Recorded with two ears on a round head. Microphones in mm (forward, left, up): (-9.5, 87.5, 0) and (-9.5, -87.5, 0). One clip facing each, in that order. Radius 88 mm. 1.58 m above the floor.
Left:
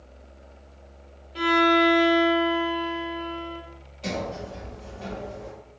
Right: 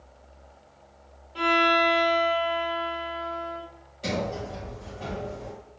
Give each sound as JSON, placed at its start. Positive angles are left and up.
{"t": 1.4, "sound": "a violin", "side_deg": 20, "distance_m": 0.7}
{"t": 4.0, "sound": "a sliding door", "side_deg": -10, "distance_m": 1.7}